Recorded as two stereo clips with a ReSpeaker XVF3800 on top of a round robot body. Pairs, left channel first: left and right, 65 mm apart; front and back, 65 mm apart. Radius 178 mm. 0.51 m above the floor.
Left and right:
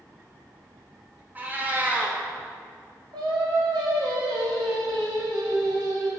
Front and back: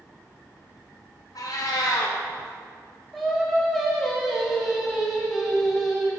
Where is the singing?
90° right, 0.8 m.